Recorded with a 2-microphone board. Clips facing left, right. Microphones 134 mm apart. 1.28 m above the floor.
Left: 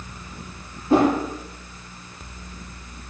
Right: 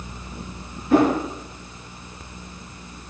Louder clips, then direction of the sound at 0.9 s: Even; 30° left (ahead or behind).